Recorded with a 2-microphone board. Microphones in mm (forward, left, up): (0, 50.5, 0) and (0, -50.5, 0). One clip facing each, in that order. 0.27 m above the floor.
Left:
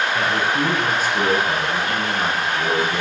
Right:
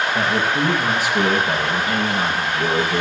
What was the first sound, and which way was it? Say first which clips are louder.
A man speaking: right 1 dB; 10° right (ahead or behind).